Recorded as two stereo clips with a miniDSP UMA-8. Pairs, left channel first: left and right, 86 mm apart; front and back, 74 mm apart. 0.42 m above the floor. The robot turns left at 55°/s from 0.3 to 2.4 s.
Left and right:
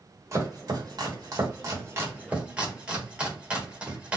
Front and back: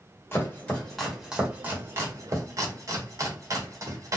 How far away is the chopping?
About 1.4 m.